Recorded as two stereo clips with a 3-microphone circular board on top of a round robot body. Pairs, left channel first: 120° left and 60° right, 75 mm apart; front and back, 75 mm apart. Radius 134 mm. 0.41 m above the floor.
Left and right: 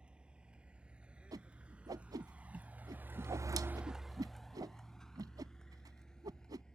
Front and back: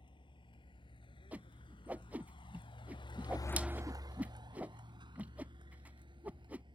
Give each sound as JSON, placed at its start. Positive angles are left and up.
{"t": 0.0, "sound": "a vehicle", "azimuth_deg": 20}
{"t": 1.3, "sound": "a whoosh", "azimuth_deg": -105}